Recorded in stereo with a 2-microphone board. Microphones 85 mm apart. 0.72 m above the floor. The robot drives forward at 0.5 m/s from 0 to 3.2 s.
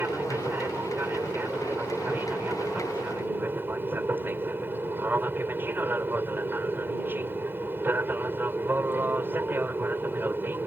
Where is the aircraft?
20° right (ahead or behind).